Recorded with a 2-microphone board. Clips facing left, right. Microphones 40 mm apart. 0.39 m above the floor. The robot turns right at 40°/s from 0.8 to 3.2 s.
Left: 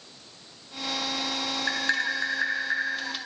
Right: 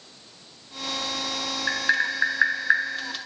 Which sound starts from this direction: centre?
Tapping, at 1.7 s.